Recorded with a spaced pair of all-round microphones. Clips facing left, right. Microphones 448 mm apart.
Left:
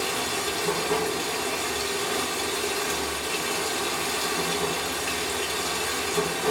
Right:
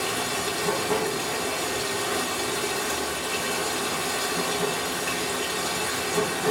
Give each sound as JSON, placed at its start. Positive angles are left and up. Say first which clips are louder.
{"t": 0.0, "sound": "running water", "louder": "even", "side_deg": -75, "distance_m": 3.5}